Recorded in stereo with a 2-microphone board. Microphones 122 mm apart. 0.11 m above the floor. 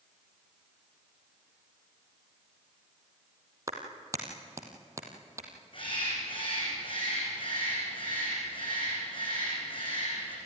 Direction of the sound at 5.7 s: 45° left (ahead or behind).